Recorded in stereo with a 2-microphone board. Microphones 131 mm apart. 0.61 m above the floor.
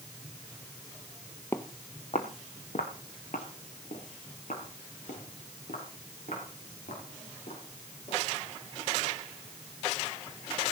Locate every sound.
1.5 s footsteps: 15° left (ahead or behind), 0.9 m; by 8.2 s 85° left, 9.5 m